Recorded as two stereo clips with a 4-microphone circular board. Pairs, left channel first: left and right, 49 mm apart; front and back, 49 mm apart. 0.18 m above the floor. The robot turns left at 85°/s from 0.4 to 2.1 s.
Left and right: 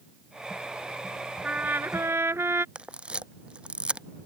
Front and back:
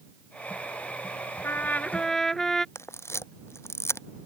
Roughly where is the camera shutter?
Ahead.